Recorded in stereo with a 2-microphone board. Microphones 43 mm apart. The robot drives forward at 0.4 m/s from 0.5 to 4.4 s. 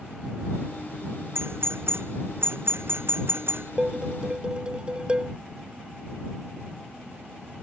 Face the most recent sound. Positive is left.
turn(degrees=-20)  # may be behind; listen again after turning